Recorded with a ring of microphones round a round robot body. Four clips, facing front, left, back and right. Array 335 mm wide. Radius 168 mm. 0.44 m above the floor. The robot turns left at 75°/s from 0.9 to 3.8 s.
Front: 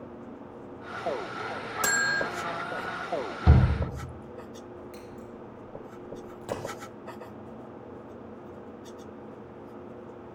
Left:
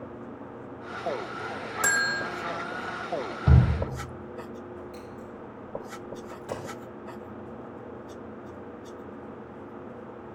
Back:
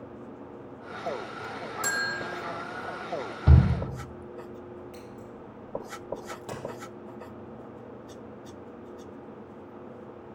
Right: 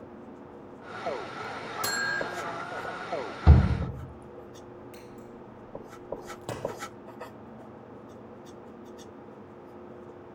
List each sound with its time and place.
1.8 s a bell: 50° left, 0.7 m; by 2.2 s 20° left, 0.7 m
3.5 s a shout: 60° right, 1.6 m; by 3.7 s 75° right, 1.6 m
4.9 s scissors: 75° right, 5 m
6.4 s a crack: 90° right, 3 m